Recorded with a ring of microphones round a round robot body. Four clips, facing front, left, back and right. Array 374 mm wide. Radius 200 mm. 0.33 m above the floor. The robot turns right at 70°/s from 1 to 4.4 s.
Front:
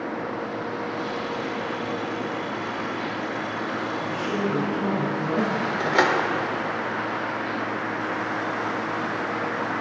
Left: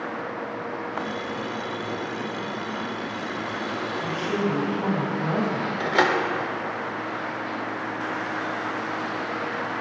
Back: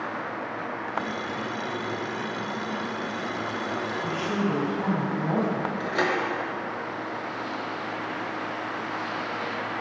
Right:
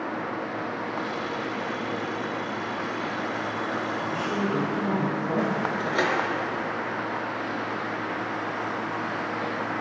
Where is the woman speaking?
115° left, 3 m; by 5.7 s 140° left, 3 m.